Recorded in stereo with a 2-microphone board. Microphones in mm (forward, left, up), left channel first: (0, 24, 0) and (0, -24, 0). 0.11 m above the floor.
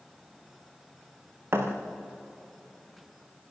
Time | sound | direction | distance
1.5 | a thud | 55° right (ahead or behind) | 4.5 m